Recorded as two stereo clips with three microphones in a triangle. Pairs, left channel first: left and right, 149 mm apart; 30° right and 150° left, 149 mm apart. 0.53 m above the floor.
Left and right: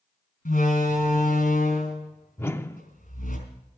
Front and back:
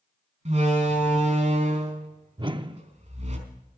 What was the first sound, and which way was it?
A door slam, 115° left.